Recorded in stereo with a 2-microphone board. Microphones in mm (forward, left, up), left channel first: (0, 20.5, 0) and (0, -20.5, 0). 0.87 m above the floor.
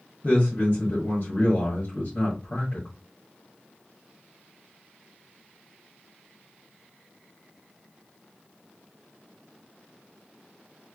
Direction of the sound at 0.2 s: 35° left (ahead or behind).